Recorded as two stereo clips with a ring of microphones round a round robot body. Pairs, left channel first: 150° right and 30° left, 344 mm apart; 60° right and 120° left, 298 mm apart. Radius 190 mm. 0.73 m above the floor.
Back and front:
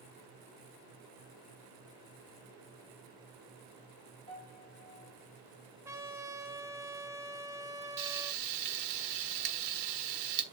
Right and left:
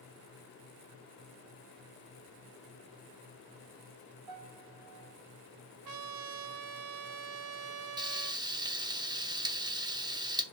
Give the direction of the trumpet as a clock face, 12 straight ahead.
8 o'clock.